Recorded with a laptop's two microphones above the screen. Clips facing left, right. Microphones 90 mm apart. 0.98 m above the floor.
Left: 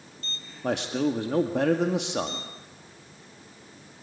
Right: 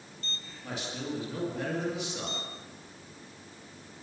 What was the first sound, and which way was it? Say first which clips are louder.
A man speaking: left 11 dB; 65° left (ahead or behind).